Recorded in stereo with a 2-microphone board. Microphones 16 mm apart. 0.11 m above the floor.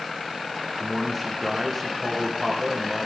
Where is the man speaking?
5° left (ahead or behind), 6 m.